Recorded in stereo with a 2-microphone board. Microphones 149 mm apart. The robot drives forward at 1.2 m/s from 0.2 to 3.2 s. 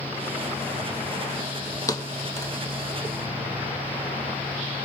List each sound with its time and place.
1.9 s a thud: 25° left (ahead or behind), 1.2 m; by 2.5 s 15° left (ahead or behind), 1.6 m